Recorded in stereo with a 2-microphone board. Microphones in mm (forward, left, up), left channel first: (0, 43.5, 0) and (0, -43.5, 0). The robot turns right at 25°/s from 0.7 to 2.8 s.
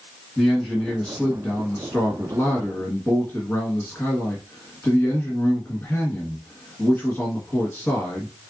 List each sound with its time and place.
0.4 s a man speaking: 5° left (ahead or behind), 1.2 m; by 8.3 s 25° left (ahead or behind), 1.2 m